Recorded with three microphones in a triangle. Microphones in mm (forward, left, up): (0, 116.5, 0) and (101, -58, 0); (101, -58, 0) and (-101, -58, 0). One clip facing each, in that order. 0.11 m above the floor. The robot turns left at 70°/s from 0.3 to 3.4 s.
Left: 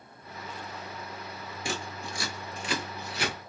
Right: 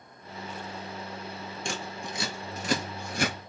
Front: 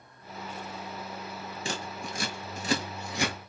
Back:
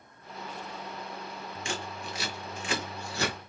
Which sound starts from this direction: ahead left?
Scissors, at 1.6 s.